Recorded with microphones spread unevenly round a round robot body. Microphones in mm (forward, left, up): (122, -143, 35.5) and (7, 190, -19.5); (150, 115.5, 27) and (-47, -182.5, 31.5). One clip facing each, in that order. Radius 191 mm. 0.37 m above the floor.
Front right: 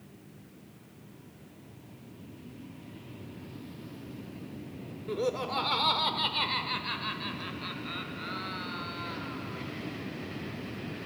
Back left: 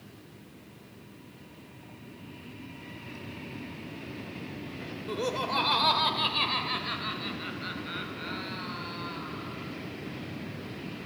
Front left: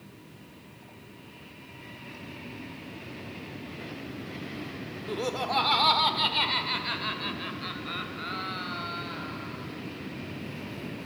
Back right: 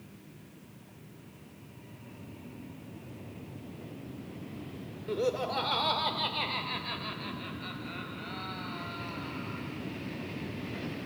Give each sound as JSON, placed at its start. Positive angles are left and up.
{"t": 5.1, "sound": "laughter", "azimuth_deg": 90, "distance_m": 1.1}